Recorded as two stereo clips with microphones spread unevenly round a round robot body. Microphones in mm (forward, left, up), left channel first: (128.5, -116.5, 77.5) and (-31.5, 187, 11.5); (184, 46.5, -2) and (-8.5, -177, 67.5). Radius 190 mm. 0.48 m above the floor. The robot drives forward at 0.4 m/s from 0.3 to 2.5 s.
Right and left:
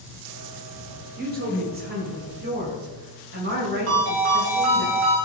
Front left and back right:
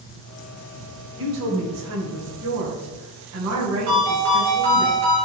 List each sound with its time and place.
1.2 s a woman speaking: 175° left, 2 m
3.9 s a ringtone: 170° left, 4 m